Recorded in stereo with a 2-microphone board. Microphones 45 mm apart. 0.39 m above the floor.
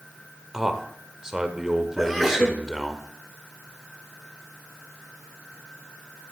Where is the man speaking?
15° right (ahead or behind), 1.1 m.